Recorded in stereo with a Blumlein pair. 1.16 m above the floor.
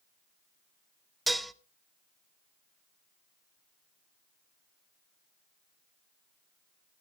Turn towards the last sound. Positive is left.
turn(degrees=-5)